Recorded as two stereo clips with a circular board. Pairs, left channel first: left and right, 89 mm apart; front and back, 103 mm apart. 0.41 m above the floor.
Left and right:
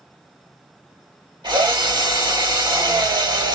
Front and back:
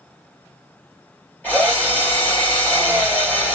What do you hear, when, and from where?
1.4 s a drill: 70° right, 2.5 m